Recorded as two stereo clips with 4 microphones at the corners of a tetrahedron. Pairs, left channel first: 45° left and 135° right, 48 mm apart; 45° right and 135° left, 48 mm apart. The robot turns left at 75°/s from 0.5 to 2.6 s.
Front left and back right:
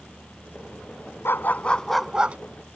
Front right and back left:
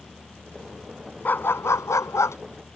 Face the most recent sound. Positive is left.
turn(degrees=-90)